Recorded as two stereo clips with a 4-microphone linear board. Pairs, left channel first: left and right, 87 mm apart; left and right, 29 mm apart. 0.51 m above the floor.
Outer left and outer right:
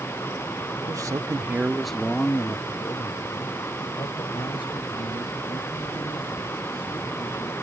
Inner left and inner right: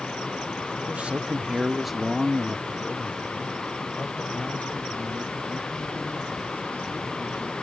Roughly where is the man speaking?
Right.